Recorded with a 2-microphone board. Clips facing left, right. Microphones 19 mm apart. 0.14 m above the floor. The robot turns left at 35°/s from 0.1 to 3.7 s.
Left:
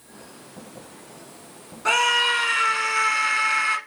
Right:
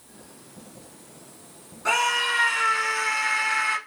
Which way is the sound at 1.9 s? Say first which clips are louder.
Left 3 dB; 15° left (ahead or behind).